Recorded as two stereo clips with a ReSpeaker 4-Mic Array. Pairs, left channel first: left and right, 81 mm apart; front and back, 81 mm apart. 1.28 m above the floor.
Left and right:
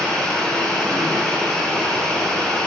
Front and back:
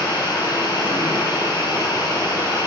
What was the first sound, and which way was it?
Running water, 15° left.